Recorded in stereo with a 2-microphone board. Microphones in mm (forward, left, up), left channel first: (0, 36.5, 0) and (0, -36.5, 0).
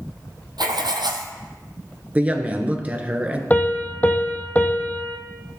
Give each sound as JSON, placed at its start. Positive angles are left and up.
{"t": 0.6, "sound": "writing", "side_deg": -75, "distance_m": 1.0}
{"t": 2.1, "sound": "a woman speaking", "side_deg": -20, "distance_m": 1.2}
{"t": 3.5, "sound": "a piano", "side_deg": 25, "distance_m": 0.9}